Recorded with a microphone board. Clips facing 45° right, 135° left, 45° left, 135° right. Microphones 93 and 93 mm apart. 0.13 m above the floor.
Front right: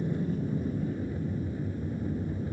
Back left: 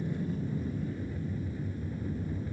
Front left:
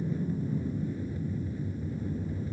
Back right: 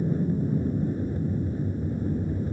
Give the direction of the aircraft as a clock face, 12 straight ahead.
4 o'clock.